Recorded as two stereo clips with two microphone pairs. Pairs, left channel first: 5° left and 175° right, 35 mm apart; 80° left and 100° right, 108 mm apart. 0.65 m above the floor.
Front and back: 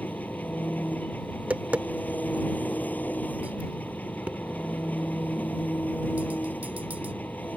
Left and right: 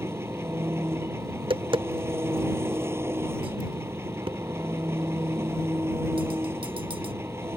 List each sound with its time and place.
0.0 s an engine running: 35° right
1.3 s tapping: 140° right